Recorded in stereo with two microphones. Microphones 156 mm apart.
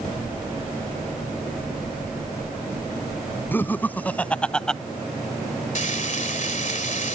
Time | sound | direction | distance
3.5 | laughter | 10° left (ahead or behind) | ?
5.8 | frying | 55° left (ahead or behind) | ?